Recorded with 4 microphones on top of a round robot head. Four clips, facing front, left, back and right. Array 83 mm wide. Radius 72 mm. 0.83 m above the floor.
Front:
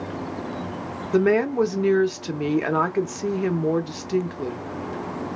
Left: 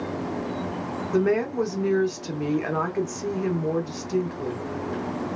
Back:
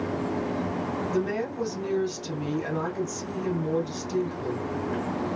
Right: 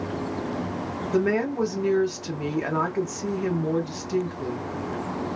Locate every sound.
1.1 s a woman speaking: straight ahead, 0.8 m